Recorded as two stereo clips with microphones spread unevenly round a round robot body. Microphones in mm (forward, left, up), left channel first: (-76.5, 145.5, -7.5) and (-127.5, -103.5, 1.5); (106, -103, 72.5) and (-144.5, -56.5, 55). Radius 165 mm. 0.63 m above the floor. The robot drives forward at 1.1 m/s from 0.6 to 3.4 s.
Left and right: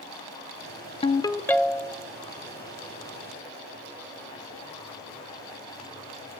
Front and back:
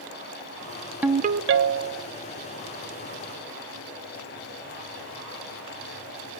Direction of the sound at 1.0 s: 100° left.